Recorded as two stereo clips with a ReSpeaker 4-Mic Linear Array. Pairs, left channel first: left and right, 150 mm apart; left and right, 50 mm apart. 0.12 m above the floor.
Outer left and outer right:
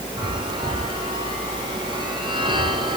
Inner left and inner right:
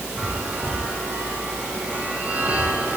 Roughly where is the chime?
Right.